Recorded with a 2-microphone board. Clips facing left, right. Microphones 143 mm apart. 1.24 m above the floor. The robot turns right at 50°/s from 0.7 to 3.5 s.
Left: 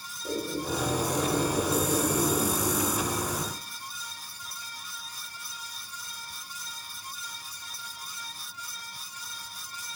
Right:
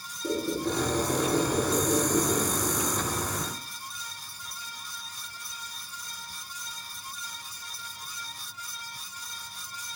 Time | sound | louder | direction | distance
0.2 | a squeak | right 3 dB | 70° right | 0.9 m